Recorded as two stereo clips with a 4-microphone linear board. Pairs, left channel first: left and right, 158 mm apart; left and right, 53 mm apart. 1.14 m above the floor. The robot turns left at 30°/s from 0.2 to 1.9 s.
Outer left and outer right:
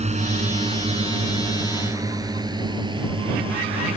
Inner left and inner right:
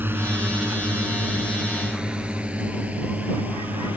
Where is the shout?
I don't hear a shout.